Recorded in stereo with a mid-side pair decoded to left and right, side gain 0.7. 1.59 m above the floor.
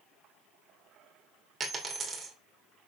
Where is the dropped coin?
30° right, 3 m.